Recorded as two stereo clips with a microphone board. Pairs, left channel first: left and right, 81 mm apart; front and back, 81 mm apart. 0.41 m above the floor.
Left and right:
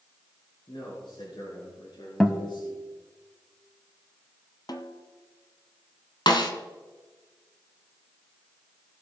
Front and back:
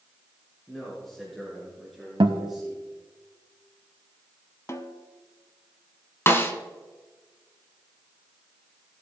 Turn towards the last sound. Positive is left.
turn(degrees=60)